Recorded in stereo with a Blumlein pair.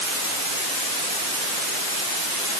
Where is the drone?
I don't hear a drone.